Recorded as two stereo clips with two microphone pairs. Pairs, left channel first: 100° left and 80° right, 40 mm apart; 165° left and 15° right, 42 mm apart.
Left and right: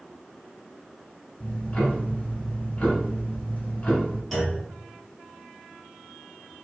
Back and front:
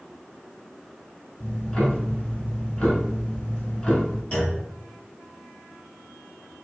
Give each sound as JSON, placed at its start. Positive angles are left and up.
{"t": 1.4, "sound": "ticking", "azimuth_deg": 130, "distance_m": 0.8}
{"t": 4.3, "sound": "a clunk", "azimuth_deg": -160, "distance_m": 1.7}